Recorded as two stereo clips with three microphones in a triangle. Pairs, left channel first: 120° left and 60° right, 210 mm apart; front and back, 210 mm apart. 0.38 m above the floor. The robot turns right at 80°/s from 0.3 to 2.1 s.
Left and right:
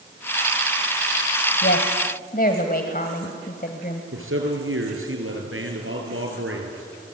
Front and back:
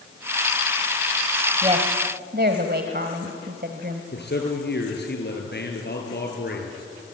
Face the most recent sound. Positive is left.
turn(degrees=-40)